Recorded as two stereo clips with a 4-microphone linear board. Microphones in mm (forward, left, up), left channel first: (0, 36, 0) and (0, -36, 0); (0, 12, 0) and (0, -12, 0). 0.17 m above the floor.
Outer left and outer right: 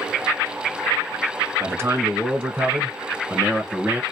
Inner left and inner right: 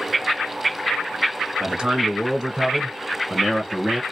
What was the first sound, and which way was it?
A man speaking, 35° right (ahead or behind).